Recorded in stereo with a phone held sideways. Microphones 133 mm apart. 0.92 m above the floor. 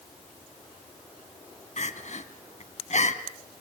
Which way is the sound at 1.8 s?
65° left (ahead or behind).